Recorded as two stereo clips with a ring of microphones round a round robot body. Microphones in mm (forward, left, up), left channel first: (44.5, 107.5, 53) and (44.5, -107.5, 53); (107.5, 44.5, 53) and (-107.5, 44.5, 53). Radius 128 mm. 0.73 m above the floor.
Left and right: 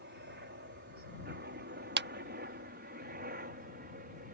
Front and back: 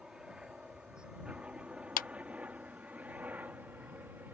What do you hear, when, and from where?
0.0 s a helicopter: 95° right; by 4.3 s 100° right
2.0 s a clap: 55° right